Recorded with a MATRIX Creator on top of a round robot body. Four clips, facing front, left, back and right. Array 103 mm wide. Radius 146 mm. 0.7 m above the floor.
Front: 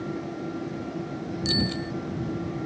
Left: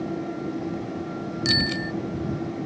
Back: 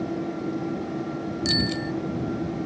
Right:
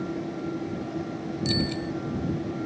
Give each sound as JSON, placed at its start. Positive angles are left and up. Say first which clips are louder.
{"t": 1.4, "sound": "a bicycle bell", "louder": "left 1 dB, back 1 dB", "azimuth_deg": 100}